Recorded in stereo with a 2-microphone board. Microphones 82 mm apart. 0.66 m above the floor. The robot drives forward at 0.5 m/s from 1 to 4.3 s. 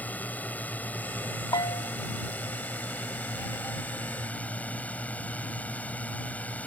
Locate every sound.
0.0 s a drone: 20° left (ahead or behind)
1.5 s a bell: 60° left (ahead or behind); by 1.9 s 50° left (ahead or behind)